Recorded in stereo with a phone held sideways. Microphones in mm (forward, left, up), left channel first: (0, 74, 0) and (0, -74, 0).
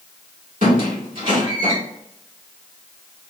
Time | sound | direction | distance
0.6 | a squeak | 60° right (ahead or behind) | 1.7 m